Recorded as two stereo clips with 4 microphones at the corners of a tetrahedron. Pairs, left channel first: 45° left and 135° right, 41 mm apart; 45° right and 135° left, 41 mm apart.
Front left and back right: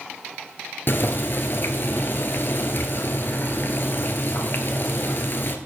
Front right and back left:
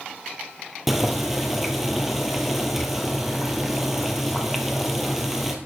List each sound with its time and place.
0.9 s boiling: 55° left, 1.1 m